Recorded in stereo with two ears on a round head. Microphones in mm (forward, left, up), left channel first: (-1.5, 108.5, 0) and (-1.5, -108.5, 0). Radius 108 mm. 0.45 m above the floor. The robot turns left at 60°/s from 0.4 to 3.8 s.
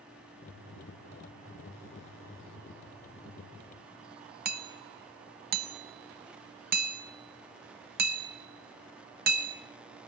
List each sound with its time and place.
4.5 s hammering: 40° right (ahead or behind), 1.1 m